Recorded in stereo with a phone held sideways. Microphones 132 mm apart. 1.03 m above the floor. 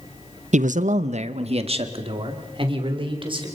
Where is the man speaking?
60° right (ahead or behind), 0.5 m; by 3.5 s 40° right (ahead or behind), 4 m.